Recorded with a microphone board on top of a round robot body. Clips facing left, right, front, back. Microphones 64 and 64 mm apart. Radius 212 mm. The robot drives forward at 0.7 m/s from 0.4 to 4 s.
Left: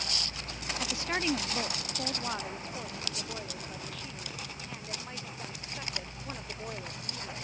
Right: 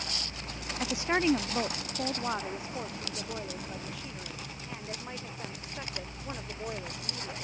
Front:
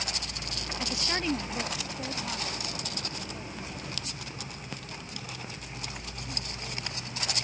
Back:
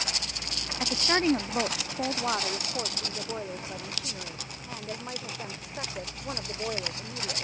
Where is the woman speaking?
140° right; by 7.4 s 170° right.